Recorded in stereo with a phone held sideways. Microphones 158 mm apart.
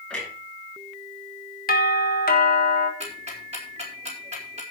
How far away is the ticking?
About 4 m.